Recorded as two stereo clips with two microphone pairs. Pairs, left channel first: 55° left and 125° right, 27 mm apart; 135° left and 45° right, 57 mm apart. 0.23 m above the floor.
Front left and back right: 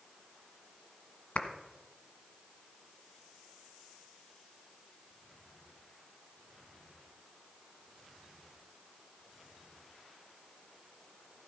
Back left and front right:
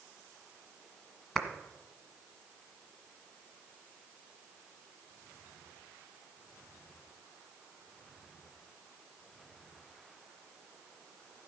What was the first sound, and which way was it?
A clap, 55° left.